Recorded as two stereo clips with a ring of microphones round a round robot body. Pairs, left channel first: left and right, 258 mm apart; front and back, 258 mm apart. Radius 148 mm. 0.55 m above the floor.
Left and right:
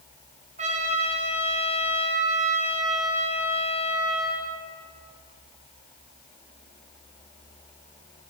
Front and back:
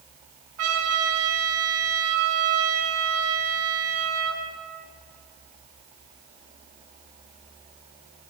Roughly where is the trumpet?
Behind right.